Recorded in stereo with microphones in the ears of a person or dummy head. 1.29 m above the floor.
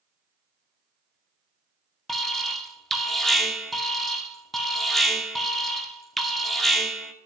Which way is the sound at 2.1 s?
Centre (ahead or behind).